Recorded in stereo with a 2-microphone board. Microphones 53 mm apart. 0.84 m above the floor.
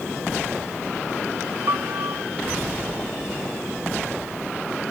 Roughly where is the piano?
Right.